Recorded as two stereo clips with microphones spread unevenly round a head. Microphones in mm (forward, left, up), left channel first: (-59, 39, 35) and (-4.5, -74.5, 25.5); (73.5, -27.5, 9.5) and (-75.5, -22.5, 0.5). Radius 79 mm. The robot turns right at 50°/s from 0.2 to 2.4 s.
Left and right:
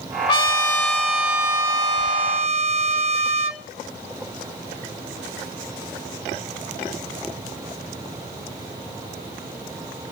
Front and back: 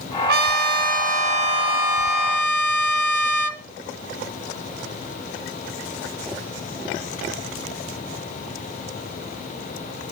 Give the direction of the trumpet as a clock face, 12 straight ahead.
7 o'clock.